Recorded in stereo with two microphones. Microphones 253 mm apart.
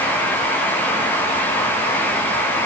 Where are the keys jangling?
No keys jangling in this recording.